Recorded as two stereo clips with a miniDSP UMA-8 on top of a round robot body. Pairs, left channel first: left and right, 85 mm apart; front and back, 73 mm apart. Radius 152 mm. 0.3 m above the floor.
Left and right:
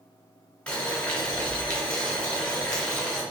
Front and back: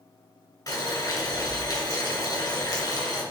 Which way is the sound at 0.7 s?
15° left.